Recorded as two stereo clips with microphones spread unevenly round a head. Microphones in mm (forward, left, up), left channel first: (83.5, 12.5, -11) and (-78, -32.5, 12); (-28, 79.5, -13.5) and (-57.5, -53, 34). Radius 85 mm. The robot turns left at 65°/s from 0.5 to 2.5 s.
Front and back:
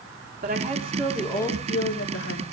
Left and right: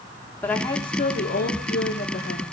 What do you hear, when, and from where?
0.4 s a woman speaking: 155° left, 3.5 m; by 2.4 s 30° left, 3.5 m